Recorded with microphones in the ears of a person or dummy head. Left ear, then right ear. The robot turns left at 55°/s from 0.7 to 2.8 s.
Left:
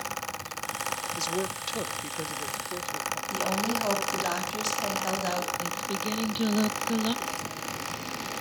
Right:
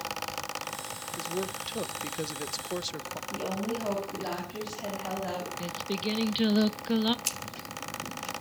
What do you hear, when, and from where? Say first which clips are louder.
1.2 s a man speaking: left 3 dB; 35° left, 1.1 m; by 3.2 s 55° right, 1.1 m
3.3 s a woman speaking: left 4 dB; 90° left, 8 m
5.6 s singing: left 2 dB; 20° right (ahead or behind), 1.1 m
7.2 s scissors: left 1 dB; 75° right (ahead or behind), 5.5 m